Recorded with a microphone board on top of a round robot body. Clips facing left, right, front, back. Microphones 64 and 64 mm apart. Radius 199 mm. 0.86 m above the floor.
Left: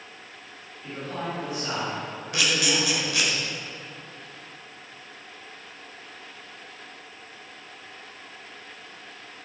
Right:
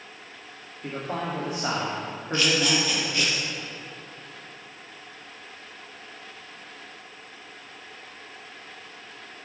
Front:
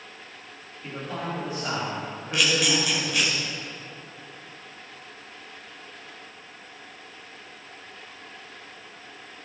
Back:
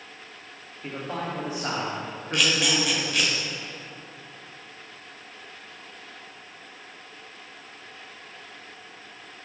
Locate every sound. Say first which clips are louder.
0.8 s a man speaking: right 2 dB, back 1 dB; 115° right, 2.5 m
2.3 s a camera shutter: right 2 dB, even; 90° left, 1.6 m